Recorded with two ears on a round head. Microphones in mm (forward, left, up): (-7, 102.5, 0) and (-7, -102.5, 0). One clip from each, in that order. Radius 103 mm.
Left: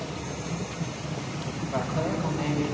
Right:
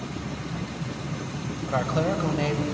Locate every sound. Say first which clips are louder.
1.7 s a woman speaking: right 4 dB; 70° right (ahead or behind), 3.5 m